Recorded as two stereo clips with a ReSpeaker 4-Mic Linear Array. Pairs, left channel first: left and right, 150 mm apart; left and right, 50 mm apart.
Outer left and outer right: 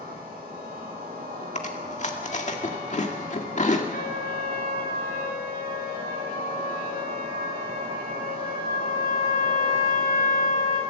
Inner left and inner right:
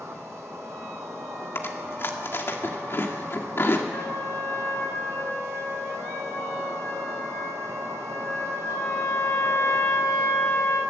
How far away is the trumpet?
About 7.5 m.